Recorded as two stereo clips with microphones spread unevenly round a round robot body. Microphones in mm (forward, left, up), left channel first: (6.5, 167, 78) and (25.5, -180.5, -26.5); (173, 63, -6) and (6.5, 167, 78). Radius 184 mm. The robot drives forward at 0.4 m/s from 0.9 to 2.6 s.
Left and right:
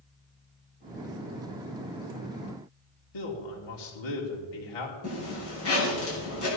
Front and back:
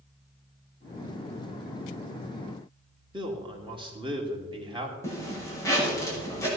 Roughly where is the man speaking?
Left.